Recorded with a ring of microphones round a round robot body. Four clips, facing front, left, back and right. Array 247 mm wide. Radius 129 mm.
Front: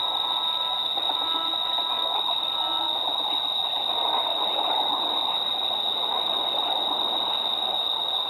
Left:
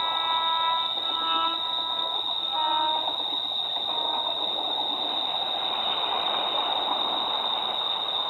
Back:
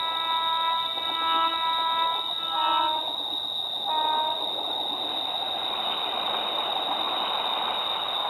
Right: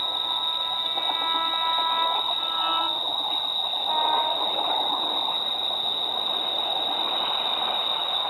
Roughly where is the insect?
Right.